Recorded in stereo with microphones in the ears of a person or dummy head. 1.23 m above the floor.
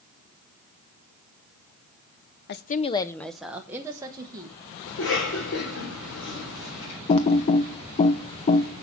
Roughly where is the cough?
Left.